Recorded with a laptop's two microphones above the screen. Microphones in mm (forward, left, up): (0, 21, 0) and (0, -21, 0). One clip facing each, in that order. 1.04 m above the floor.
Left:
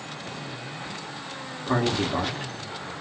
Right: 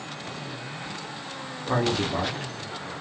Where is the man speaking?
5° left (ahead or behind), 0.7 m.